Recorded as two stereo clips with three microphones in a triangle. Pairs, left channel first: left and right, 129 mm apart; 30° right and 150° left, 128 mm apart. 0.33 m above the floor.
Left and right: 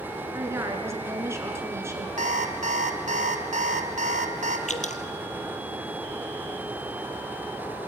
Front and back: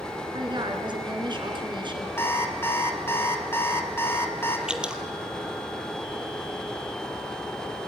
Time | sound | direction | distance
0.3 | a woman speaking | 160° right | 5 m
2.2 | an alarm clock | 100° right | 2 m
4.7 | dripping | 65° left | 1.5 m